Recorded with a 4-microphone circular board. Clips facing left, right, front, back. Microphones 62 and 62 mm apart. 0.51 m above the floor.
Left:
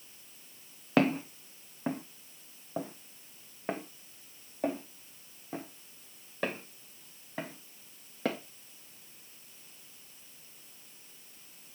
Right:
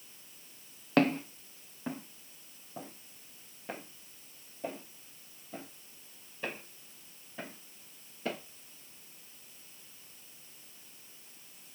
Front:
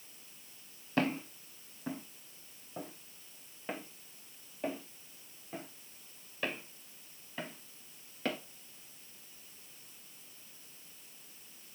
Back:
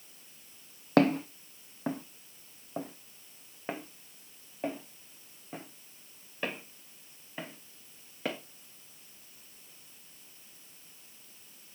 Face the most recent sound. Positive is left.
turn(degrees=100)